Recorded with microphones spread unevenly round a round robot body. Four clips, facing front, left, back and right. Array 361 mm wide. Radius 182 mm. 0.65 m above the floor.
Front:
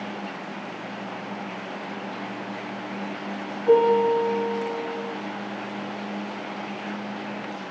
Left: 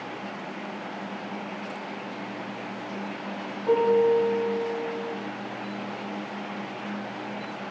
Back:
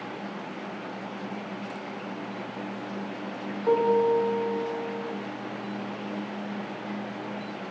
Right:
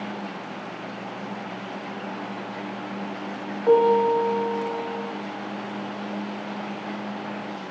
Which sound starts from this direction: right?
A piano, at 3.7 s.